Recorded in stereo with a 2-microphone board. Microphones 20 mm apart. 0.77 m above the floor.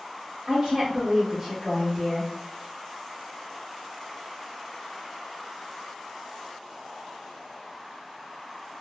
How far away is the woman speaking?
About 1.2 m.